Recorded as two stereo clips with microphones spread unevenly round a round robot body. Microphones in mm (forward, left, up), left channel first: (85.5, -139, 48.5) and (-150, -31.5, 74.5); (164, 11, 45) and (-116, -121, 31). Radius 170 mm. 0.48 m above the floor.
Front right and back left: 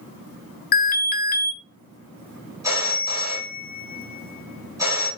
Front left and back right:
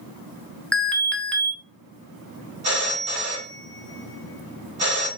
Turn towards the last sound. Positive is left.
turn(degrees=-125)